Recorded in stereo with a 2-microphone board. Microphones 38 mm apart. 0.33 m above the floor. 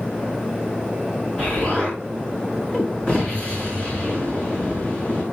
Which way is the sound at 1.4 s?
30° left (ahead or behind).